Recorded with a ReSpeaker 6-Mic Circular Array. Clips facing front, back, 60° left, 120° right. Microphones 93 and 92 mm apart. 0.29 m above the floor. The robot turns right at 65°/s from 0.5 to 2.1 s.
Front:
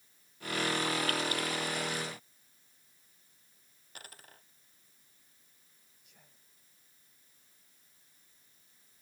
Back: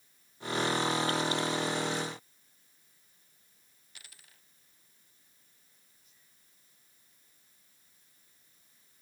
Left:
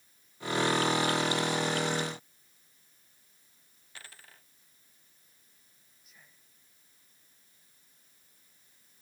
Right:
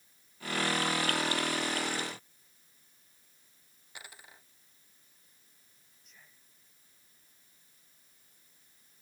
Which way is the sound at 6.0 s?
25° right.